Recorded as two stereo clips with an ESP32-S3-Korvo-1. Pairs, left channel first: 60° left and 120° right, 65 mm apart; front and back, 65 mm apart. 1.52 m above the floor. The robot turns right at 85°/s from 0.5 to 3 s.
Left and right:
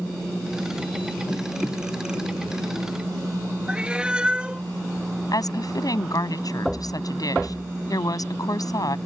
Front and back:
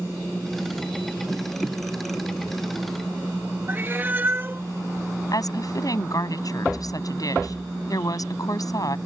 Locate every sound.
3.7 s a cat meowing: straight behind
5.3 s a woman speaking: 30° left